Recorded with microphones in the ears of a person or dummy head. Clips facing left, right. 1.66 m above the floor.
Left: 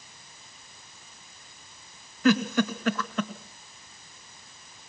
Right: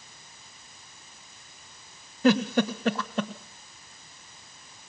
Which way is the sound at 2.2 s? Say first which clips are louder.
Right 1 dB; 25° right (ahead or behind).